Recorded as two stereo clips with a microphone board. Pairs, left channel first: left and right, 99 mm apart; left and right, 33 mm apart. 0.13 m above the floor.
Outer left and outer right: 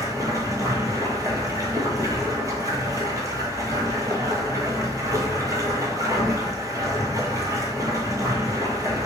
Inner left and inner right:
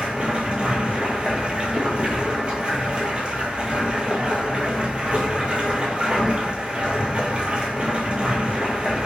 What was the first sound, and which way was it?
Running water, 35° right (ahead or behind).